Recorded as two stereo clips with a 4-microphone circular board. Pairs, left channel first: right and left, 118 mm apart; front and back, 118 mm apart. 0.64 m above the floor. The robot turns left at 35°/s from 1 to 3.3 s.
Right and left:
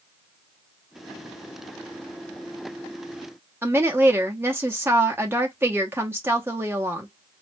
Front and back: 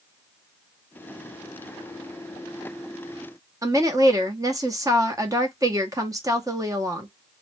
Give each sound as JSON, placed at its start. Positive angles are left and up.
{"t": 3.6, "sound": "a woman speaking", "azimuth_deg": 145, "distance_m": 0.8}